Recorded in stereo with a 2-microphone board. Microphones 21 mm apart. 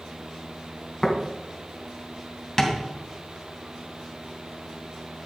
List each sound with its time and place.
1.0 s tapping: 10° left (ahead or behind), 2.5 m
2.6 s tapping: 15° left (ahead or behind), 2.5 m